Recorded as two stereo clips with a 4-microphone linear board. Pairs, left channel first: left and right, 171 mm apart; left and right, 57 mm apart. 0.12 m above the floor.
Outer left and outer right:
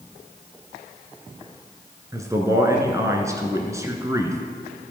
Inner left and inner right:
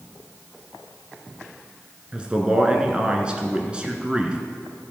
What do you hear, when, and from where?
2.1 s a man speaking: 20° right (ahead or behind), 1.2 m